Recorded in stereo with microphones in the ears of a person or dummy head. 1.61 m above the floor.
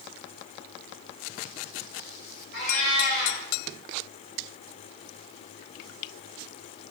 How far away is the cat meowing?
About 3 m.